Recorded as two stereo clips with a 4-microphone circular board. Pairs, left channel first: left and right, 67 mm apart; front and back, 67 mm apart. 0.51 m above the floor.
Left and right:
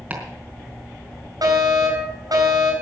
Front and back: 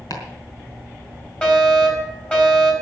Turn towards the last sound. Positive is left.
turn(degrees=-70)